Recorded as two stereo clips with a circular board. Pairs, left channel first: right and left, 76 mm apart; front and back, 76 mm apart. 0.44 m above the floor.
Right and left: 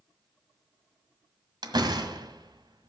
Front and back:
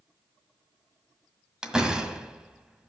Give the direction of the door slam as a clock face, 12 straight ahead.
9 o'clock.